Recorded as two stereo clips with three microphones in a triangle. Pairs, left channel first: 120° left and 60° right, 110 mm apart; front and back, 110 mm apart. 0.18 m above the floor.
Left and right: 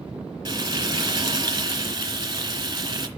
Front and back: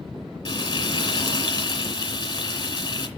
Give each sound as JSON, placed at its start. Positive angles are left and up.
{"t": 0.5, "sound": "frying", "azimuth_deg": -35, "distance_m": 2.0}